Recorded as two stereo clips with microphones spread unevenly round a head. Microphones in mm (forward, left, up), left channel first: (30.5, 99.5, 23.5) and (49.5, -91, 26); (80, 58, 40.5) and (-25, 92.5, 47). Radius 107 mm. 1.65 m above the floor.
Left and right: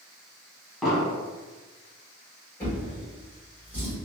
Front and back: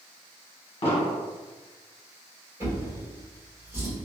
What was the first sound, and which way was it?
An explosion, 5° left.